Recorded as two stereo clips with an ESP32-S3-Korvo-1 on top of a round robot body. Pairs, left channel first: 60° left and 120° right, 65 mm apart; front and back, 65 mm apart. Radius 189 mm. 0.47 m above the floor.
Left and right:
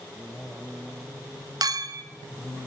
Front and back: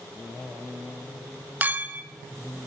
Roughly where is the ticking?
No ticking in this recording.